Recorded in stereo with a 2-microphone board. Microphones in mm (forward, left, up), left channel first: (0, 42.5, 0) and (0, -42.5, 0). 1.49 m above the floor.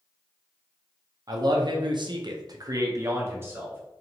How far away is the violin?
I don't hear a violin.